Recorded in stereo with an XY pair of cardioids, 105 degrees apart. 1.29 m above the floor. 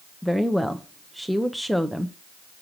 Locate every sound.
0.2 s a woman speaking: straight ahead, 0.9 m